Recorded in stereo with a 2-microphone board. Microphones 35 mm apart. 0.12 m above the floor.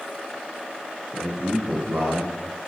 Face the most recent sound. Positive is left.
turn(degrees=-80)